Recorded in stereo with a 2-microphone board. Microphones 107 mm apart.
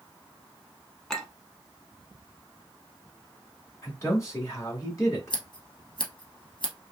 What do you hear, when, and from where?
1.1 s a clink: 5° left (ahead or behind), 0.9 m
3.8 s a man speaking: 30° left (ahead or behind), 1.9 m
5.3 s scissors: 55° left (ahead or behind), 1.5 m